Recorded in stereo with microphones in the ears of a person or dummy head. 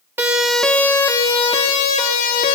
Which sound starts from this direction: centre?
A siren, at 0.2 s.